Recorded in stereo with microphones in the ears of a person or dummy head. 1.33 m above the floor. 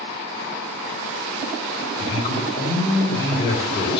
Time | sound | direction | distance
2.0 | a man speaking | 35° left (ahead or behind) | 4.5 m